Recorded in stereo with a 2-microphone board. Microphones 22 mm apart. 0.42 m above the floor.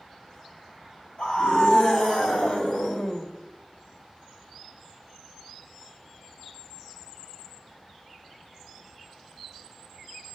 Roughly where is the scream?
Left.